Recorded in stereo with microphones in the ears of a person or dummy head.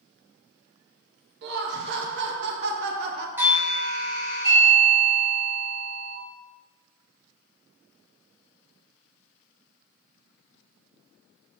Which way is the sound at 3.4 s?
10° right (ahead or behind).